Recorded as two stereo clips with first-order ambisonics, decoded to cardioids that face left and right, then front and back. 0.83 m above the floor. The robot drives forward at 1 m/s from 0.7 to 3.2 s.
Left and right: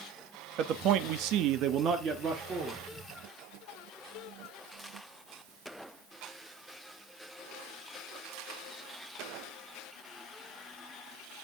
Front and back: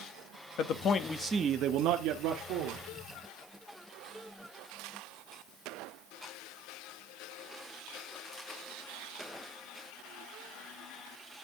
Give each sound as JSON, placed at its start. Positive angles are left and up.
{"t": 0.6, "sound": "a man speaking", "azimuth_deg": -45, "distance_m": 0.8}